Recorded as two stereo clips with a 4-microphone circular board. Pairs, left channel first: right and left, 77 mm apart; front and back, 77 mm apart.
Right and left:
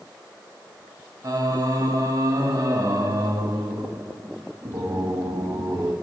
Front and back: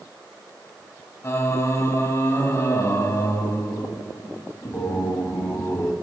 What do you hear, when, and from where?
1.2 s singing: 55° left, 0.9 m